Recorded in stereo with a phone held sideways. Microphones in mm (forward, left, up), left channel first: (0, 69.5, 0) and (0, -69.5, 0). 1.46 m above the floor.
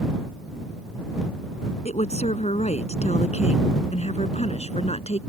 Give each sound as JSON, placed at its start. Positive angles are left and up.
{"t": 1.9, "sound": "a woman speaking", "side_deg": 50}